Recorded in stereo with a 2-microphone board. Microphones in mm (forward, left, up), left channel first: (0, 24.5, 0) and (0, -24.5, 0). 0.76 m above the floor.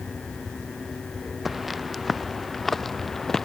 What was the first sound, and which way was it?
Footsteps, centre (ahead or behind).